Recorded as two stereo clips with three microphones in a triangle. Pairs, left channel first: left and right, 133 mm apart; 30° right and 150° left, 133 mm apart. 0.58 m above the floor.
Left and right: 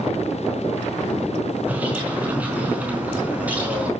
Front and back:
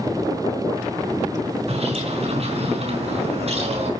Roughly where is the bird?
Behind.